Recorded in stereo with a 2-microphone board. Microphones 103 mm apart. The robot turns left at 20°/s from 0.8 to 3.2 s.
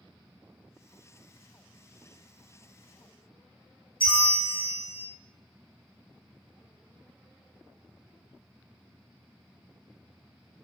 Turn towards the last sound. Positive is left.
turn(degrees=50)  # may be behind; listen again after turning